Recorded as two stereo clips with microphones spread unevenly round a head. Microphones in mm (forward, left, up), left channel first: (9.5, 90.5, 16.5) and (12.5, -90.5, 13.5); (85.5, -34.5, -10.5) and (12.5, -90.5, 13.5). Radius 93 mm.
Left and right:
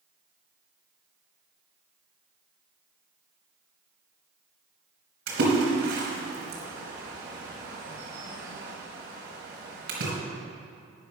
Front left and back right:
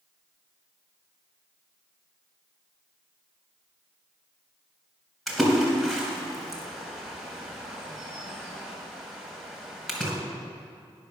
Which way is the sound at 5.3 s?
60° right.